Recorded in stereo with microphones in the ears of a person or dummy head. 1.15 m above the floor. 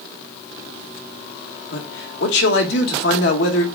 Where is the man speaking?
65° left (ahead or behind), 1.1 m.